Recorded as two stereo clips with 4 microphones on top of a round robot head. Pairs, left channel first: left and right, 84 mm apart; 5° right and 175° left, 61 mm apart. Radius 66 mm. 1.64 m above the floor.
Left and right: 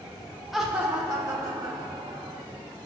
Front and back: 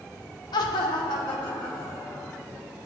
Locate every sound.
0.5 s laughter: straight ahead, 0.8 m; by 2.4 s 50° right, 2.5 m